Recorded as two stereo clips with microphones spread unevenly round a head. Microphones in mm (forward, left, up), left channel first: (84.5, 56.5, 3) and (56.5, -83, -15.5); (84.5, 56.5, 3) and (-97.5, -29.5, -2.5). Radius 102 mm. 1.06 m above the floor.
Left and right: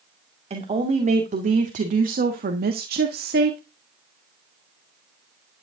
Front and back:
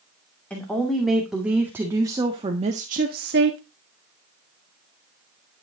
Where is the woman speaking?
60° right, 2.5 m; by 3.6 s 120° right, 1.4 m.